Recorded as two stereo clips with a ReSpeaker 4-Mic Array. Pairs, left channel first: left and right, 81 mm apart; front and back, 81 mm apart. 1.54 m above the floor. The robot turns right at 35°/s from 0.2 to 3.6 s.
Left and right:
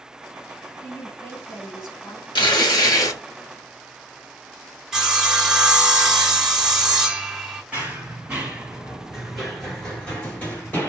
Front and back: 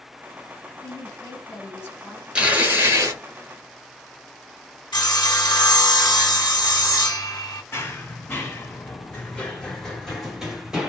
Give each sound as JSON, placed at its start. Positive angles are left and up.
{"t": 0.8, "sound": "a woman speaking", "azimuth_deg": 20, "distance_m": 2.0}
{"t": 2.4, "sound": "tearing paper", "azimuth_deg": 105, "distance_m": 1.2}
{"t": 4.9, "sound": "sawing", "azimuth_deg": -5, "distance_m": 1.5}
{"t": 7.7, "sound": "running footsteps", "azimuth_deg": -35, "distance_m": 2.0}